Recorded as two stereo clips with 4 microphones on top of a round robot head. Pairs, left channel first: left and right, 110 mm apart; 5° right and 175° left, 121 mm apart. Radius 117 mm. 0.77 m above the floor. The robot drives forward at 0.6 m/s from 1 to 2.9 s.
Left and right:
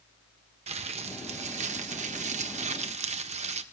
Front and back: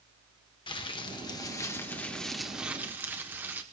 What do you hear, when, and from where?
0.7 s crumpling: 60° right, 1.5 m; by 3.6 s 110° right, 1.3 m